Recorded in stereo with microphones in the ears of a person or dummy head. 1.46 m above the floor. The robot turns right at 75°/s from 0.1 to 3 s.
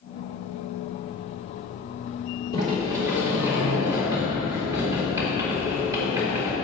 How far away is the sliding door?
About 3 m.